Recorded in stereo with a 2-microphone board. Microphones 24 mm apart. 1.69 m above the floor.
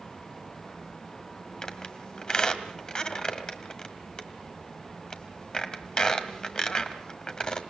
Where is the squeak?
30° left (ahead or behind), 1.7 m.